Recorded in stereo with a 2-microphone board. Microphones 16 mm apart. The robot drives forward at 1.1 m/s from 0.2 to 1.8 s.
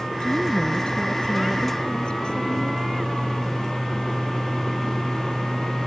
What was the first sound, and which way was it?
A woman speaking, 70° left (ahead or behind).